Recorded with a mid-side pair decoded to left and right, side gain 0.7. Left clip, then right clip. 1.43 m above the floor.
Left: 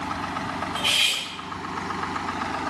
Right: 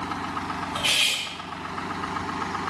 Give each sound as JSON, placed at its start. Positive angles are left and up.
{"t": 0.8, "sound": "cutlery clinking", "azimuth_deg": -25, "distance_m": 1.8}